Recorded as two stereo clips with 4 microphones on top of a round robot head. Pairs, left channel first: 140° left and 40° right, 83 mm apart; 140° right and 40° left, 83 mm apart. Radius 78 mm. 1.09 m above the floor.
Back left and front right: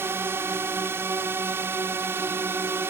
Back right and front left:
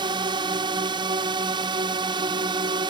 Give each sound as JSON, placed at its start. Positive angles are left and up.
{"t": 0.0, "sound": "a drone", "azimuth_deg": 20}